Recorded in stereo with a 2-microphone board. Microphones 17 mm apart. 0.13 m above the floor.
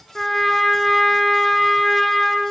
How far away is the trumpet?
About 2.5 m.